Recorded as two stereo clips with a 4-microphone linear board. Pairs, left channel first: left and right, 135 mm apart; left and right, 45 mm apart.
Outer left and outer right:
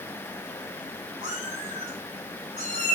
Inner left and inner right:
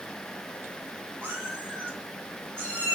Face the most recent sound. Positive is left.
turn(degrees=-85)